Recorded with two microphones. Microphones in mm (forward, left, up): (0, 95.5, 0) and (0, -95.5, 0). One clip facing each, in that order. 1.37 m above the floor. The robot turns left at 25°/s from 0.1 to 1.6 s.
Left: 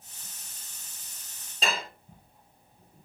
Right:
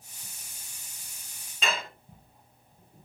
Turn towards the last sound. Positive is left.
turn(degrees=30)  # may be behind; listen again after turning